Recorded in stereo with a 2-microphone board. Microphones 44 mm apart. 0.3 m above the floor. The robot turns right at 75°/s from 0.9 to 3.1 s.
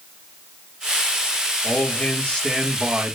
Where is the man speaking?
105° left, 4 m; by 3.1 s 145° right, 4 m.